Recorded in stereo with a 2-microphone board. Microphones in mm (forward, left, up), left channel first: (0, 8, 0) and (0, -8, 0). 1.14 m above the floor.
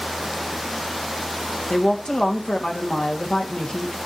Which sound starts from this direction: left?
A woman speaking, at 1.7 s.